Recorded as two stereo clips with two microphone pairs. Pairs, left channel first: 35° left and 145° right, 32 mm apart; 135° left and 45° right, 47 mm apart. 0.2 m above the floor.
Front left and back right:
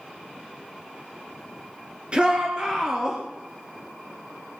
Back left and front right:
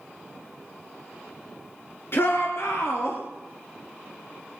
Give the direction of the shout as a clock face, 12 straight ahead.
7 o'clock.